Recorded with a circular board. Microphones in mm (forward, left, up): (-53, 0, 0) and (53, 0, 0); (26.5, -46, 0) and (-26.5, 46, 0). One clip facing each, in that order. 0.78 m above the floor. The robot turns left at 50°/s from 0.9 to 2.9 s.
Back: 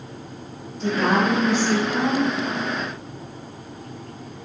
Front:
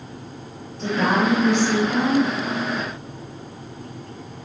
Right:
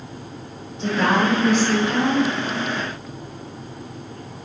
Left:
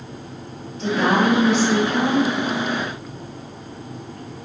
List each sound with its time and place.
0.8 s a woman speaking: 10° left, 1.6 m; by 2.3 s 60° right, 1.6 m